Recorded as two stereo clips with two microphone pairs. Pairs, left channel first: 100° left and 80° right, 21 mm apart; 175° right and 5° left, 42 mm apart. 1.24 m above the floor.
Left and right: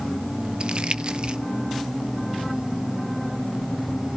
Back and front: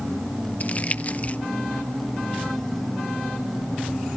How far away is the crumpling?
About 0.8 m.